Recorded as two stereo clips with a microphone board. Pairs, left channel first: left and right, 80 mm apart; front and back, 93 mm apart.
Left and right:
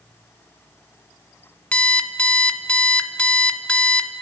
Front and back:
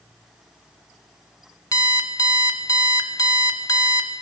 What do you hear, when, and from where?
1.7 s an alarm clock: 20° left, 0.5 m